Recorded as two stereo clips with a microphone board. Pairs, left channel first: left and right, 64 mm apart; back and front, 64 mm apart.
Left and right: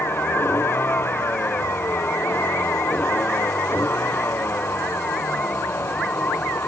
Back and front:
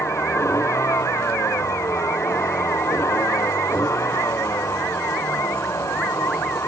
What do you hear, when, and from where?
0.0 s a vehicle: 140° left